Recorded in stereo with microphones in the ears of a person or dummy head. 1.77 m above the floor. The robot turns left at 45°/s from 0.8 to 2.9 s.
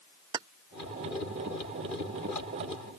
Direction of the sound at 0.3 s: 25° right (ahead or behind).